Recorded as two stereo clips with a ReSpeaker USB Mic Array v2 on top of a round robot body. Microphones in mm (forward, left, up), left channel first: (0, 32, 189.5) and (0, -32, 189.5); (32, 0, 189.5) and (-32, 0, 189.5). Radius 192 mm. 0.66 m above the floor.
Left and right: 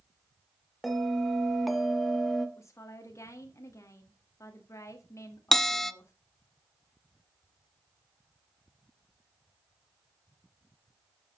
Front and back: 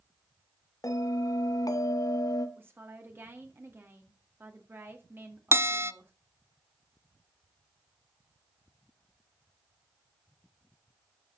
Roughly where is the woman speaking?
Behind left.